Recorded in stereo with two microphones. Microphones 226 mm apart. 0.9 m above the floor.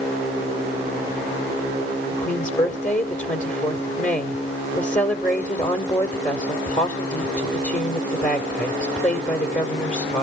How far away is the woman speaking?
About 2.5 m.